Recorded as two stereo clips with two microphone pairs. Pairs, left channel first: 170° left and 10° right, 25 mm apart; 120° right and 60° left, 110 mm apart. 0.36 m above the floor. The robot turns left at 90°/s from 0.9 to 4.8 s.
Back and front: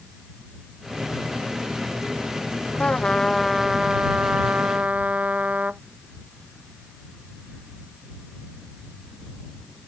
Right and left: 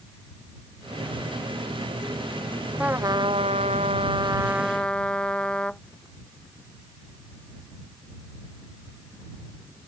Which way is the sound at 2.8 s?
140° left.